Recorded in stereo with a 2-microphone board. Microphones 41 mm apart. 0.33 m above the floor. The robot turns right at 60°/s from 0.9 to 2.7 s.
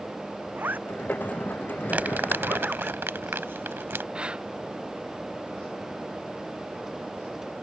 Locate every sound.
0.6 s a zipper: 50° right (ahead or behind); by 2.9 s 25° right (ahead or behind)
1.9 s crumpling: 40° right (ahead or behind); by 4.0 s 65° right (ahead or behind)
4.2 s breathing: 25° right (ahead or behind)